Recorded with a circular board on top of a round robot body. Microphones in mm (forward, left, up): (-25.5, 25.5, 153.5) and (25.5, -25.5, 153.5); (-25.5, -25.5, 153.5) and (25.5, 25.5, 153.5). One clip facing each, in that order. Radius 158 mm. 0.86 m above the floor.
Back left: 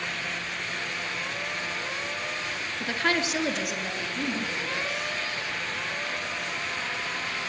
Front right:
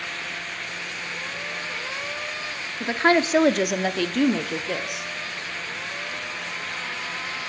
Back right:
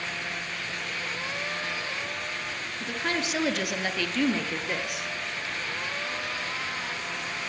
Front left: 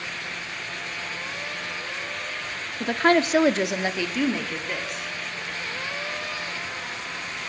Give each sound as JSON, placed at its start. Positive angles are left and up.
{"t": 2.8, "sound": "a woman speaking", "azimuth_deg": 20, "distance_m": 2.0}